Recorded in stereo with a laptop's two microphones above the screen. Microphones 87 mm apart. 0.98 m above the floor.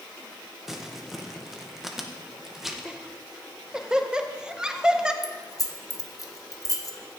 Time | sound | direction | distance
0.7 | crumpling | 5° right (ahead or behind) | 0.8 m
2.9 | laughter | 10° right (ahead or behind) | 0.6 m
5.2 | keys jangling | 40° left (ahead or behind) | 0.7 m